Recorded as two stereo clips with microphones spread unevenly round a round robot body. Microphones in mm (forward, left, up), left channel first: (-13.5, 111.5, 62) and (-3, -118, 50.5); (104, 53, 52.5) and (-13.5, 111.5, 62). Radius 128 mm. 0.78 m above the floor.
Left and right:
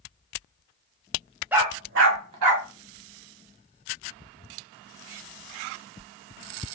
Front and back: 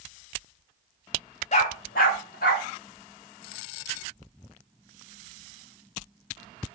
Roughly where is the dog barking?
Ahead.